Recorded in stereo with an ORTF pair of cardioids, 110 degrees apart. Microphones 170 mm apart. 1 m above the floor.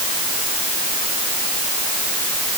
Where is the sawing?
No sawing in this recording.